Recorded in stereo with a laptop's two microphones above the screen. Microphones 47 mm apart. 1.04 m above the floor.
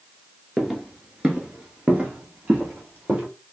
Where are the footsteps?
5° right (ahead or behind), 1.1 m; by 3.2 s 30° right (ahead or behind), 1.8 m.